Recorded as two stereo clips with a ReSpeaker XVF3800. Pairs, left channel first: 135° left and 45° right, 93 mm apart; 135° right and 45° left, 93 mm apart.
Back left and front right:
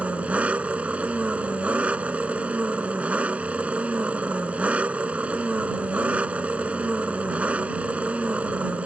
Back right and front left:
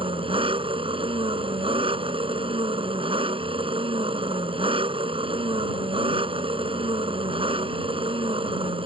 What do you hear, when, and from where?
0.0 s an engine running: 30° left